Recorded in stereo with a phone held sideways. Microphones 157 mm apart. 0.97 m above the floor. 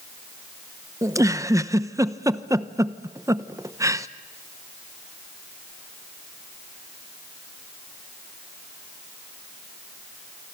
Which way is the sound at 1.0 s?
20° right (ahead or behind).